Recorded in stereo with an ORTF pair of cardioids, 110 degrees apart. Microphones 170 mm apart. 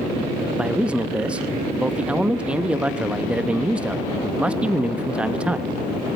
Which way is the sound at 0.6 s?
5° right.